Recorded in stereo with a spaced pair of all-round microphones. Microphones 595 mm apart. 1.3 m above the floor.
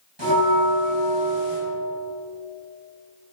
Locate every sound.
0.2 s a bell: 45° right (ahead or behind), 3 m